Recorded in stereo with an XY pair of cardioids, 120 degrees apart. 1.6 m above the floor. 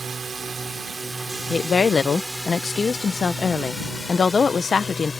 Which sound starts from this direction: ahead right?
A drone, at 0.0 s.